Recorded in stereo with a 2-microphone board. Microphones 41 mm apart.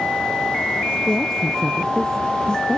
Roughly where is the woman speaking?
Centre.